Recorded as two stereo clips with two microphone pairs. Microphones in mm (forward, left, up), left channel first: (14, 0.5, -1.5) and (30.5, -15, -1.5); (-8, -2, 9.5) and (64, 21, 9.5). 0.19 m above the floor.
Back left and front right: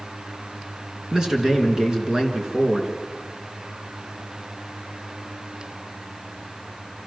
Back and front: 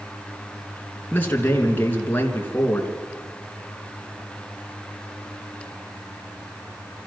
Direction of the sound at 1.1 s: 100° right.